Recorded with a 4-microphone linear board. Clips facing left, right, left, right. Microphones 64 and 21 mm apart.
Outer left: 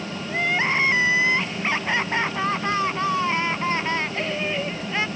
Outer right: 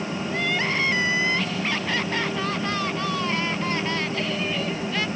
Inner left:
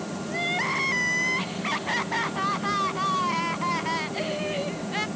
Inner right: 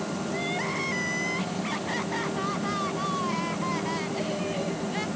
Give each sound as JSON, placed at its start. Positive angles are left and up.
{"t": 0.3, "sound": "crying", "side_deg": 25}